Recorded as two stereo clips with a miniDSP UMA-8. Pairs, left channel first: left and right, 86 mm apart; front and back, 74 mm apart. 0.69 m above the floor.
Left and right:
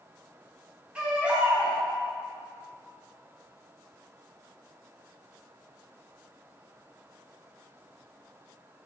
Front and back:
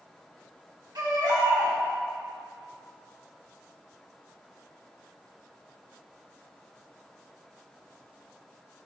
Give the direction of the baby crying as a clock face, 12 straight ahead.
5 o'clock.